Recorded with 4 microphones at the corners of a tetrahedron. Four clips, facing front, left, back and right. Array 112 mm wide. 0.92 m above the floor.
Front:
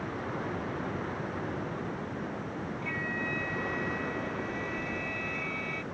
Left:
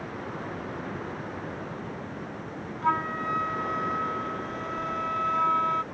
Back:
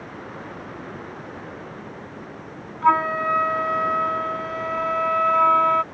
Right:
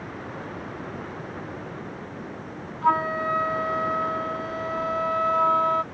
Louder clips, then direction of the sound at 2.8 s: Right 5 dB, back 20 dB; 170° right.